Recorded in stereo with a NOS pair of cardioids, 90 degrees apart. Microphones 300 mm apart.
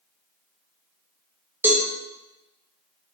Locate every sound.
1.6 s a cowbell: 5° right, 1.0 m